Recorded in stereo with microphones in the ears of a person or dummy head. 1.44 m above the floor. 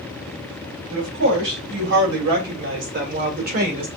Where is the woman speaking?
70° right (ahead or behind), 3.5 m; by 3.9 s 40° right (ahead or behind), 1.5 m.